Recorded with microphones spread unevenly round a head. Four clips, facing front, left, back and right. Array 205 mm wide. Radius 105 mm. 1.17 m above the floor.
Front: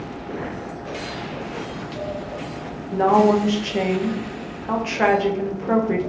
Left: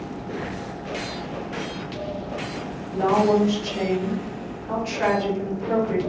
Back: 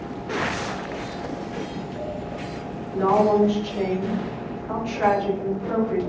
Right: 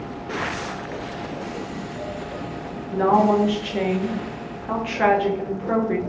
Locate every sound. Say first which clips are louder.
2.9 s a woman speaking: right 2 dB, front 3 dB; 25° right, 0.8 m